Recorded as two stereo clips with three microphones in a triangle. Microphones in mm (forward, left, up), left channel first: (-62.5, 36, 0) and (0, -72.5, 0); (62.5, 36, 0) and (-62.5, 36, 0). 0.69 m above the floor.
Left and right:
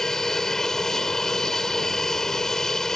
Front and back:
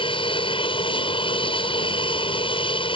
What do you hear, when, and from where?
0.0 s an aircraft: 35° left